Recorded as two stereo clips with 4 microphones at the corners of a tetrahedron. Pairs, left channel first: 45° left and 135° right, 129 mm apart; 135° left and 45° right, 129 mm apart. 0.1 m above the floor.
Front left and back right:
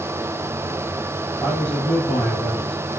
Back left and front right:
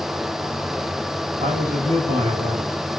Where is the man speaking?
30° right, 3 m.